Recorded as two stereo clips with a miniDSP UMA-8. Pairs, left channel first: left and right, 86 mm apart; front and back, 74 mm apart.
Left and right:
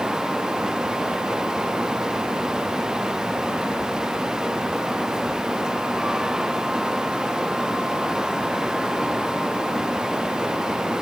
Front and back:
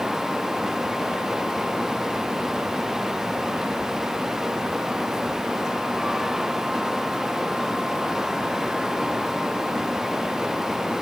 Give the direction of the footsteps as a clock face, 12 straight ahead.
I don't hear footsteps.